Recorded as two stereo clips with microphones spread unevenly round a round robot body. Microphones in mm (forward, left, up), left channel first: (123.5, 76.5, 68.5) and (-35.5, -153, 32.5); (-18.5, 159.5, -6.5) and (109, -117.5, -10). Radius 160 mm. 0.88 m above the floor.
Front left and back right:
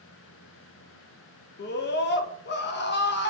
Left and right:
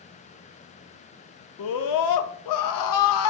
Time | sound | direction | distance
1.6 | a scream | 110° left | 0.6 m